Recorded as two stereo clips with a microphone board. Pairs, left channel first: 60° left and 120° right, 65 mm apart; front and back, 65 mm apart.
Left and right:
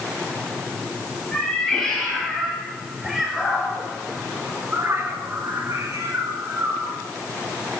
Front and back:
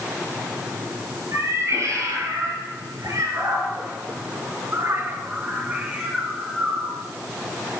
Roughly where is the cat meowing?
Behind left.